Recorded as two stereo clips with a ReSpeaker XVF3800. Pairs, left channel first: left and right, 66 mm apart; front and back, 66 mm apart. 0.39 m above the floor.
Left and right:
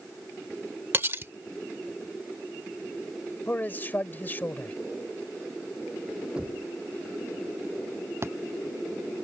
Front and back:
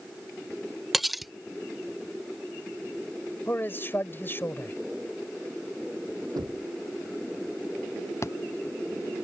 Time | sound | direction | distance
0.9 | cutlery clinking | 90° right | ?
3.5 | a man speaking | 40° left | ?
6.3 | knocking | 165° right | ?
8.2 | a thud | 45° right | ?